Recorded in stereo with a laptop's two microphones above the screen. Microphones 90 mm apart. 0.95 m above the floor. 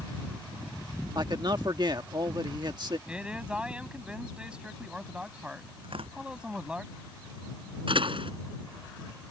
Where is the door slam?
70° right (ahead or behind).